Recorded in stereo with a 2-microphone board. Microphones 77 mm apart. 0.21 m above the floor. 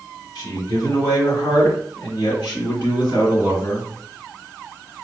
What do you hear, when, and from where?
0.3 s a man speaking: 45° left (ahead or behind), 2.5 m; by 3.9 s 55° left (ahead or behind), 3 m